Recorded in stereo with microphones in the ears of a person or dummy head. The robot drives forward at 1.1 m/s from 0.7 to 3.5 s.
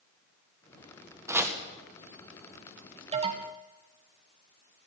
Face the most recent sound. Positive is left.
turn(degrees=-25)  # may be behind; listen again after turning